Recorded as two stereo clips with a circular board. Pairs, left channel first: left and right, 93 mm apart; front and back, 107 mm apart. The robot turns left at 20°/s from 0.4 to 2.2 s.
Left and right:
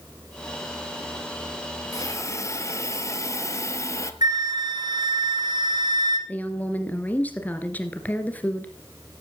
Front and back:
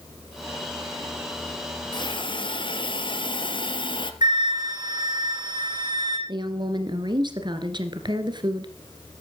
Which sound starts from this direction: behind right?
A flute, at 4.2 s.